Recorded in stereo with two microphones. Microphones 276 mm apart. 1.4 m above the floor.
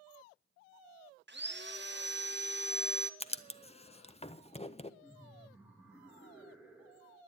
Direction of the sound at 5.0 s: 5° right (ahead or behind).